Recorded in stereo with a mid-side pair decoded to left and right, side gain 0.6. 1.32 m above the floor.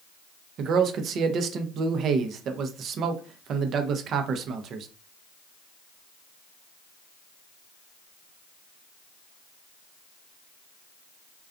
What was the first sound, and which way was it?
A man speaking, 50° right.